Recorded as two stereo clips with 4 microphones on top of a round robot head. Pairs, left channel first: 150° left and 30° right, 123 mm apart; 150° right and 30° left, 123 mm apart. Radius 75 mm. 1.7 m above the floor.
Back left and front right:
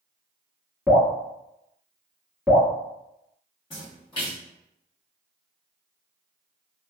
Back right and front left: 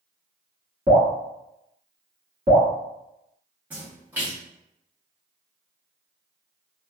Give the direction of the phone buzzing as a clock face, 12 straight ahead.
No phone buzzing in this recording.